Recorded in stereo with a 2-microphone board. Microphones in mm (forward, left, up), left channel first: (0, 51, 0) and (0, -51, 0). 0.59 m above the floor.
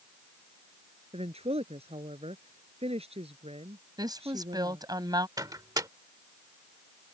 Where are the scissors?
I don't hear scissors.